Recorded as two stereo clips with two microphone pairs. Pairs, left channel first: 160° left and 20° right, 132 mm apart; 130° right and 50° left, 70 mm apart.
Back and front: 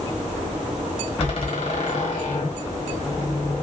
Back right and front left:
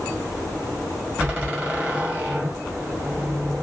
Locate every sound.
1.2 s a door slam: 120° left, 1.6 m